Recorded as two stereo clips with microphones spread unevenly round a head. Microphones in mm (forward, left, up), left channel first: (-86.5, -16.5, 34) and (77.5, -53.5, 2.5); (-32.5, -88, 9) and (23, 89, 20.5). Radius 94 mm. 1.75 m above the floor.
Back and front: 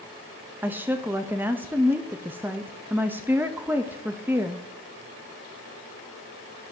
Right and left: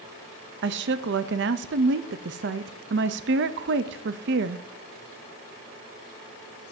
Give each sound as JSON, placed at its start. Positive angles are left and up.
{"t": 0.6, "sound": "a woman speaking", "azimuth_deg": 75, "distance_m": 0.5}